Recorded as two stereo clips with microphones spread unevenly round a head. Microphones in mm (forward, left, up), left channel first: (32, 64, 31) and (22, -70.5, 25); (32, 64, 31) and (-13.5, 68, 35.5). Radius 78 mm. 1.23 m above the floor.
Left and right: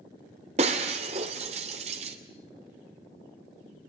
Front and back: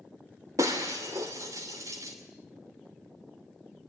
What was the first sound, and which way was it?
Breaking glass, 145° right.